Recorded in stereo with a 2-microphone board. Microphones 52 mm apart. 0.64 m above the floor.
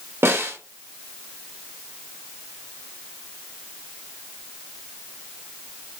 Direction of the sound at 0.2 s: 55° right (ahead or behind).